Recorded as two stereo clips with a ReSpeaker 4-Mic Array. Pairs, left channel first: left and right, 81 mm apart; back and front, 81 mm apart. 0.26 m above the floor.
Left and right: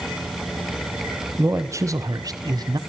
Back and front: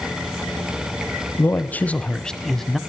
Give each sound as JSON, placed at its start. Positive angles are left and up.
{"t": 1.4, "sound": "a man speaking", "azimuth_deg": -130, "distance_m": 1.3}